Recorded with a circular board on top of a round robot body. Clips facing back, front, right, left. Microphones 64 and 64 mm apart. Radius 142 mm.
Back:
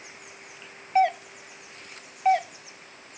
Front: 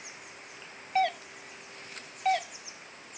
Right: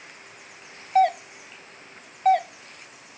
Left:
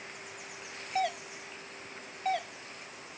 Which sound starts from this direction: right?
A doorbell, at 0.9 s.